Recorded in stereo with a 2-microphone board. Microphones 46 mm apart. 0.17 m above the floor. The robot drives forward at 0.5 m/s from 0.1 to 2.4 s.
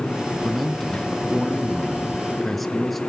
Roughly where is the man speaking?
Centre.